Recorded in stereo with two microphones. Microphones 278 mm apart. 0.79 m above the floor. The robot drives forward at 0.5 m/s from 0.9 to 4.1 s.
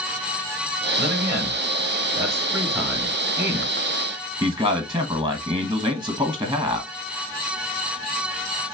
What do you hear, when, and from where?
1.0 s a man speaking: 10° right (ahead or behind), 2.5 m; by 6.9 s 15° right (ahead or behind), 1.1 m